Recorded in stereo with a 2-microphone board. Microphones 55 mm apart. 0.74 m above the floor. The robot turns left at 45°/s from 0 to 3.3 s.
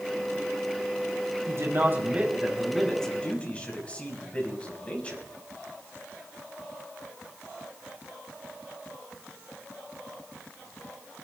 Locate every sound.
1.5 s a man speaking: 120° right, 5.5 m; by 5.2 s 155° left, 5.5 m